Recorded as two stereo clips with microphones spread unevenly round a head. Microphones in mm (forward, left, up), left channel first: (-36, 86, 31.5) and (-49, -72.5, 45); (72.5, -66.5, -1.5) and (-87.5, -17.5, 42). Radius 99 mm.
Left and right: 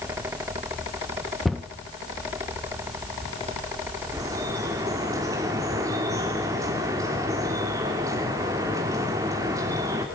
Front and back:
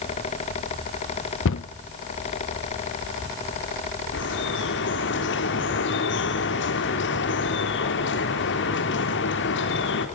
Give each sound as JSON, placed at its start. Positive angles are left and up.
{"t": 1.4, "sound": "a cupboard door", "azimuth_deg": -5, "distance_m": 0.7}
{"t": 4.1, "sound": "dripping", "azimuth_deg": -20, "distance_m": 3.0}